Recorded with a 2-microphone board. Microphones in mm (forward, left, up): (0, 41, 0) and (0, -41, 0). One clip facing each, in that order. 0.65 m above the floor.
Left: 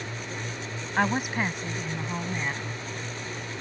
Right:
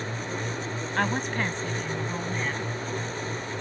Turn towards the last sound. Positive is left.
turn(degrees=10)  # may be behind; listen again after turning